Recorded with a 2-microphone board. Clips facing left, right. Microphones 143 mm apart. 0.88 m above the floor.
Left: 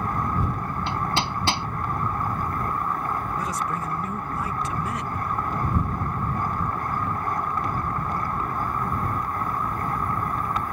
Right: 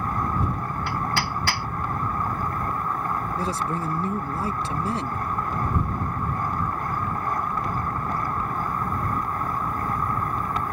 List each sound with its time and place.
0.9 s hammering: 20° left (ahead or behind)
3.4 s a man speaking: 30° right (ahead or behind)